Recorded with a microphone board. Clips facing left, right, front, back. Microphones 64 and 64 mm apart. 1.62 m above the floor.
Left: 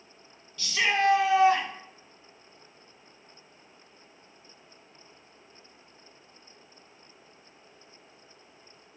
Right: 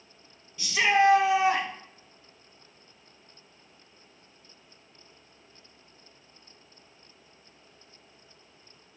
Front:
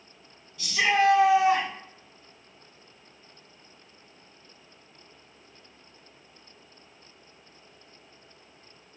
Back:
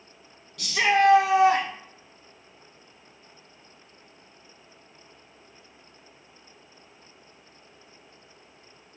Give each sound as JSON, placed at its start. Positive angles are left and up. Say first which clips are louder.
{"t": 0.6, "sound": "a shout", "louder": "right 3 dB, back 2 dB", "azimuth_deg": -160, "distance_m": 1.7}